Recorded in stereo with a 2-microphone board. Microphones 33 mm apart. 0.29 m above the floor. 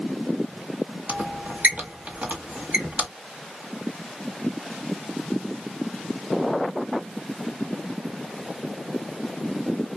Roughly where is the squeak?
Right.